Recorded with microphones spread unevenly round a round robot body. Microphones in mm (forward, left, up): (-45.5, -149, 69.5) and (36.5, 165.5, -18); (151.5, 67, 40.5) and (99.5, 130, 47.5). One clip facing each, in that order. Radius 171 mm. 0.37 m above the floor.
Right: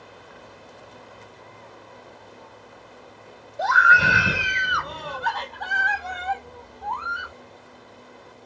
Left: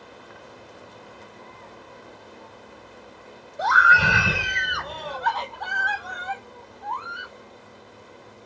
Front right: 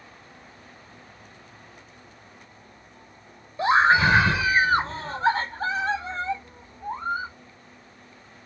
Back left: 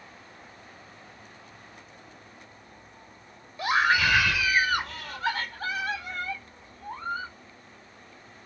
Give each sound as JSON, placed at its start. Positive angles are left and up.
{"t": 3.6, "sound": "a scream", "azimuth_deg": 0}